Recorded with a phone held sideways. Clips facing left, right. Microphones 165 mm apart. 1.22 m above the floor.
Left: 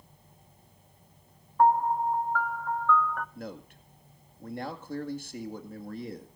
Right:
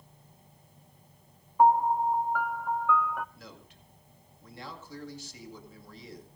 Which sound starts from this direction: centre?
A piano, at 1.6 s.